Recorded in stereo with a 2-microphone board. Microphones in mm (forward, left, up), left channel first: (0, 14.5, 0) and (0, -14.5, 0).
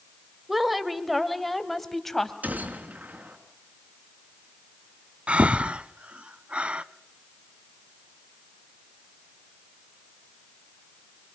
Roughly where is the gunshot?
Right.